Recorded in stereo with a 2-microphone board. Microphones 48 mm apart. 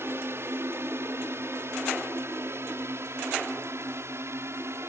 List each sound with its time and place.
0.0 s a drone: 55° right (ahead or behind); by 4.9 s 65° right (ahead or behind)